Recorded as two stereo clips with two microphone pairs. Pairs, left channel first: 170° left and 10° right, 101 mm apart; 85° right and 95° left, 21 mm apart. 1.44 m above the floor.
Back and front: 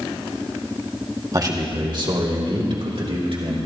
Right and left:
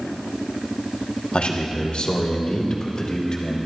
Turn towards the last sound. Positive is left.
turn(degrees=-40)